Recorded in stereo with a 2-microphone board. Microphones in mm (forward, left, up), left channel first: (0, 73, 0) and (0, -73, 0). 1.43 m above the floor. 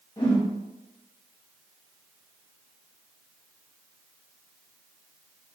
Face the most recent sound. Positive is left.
turn(degrees=30)  # may be behind; listen again after turning